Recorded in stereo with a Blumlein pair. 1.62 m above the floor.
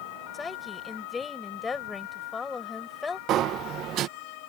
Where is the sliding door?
30° right.